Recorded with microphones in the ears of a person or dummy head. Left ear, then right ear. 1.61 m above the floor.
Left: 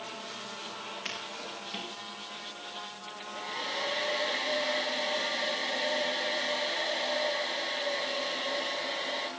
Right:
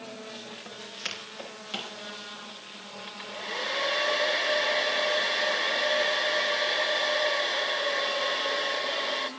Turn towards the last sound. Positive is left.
turn(degrees=-60)  # may be behind; listen again after turning